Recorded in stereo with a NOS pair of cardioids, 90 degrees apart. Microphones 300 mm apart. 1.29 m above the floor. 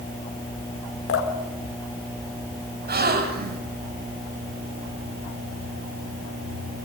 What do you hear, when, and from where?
1.1 s dripping: 45° left, 4 m
2.9 s a gasp: 35° right, 4.5 m